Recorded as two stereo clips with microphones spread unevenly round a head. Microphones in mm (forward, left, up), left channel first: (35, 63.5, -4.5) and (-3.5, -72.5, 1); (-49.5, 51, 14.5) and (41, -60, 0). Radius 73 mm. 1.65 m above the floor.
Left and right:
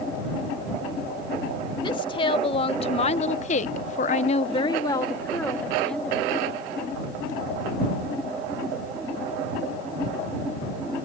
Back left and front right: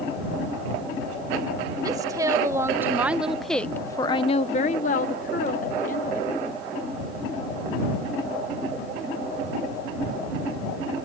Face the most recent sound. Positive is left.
turn(degrees=165)